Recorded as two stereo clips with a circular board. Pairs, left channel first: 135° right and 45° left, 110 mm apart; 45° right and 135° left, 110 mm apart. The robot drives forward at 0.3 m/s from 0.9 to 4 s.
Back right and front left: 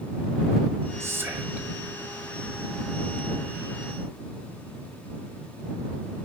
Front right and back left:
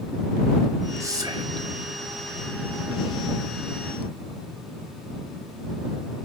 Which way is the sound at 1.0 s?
95° left.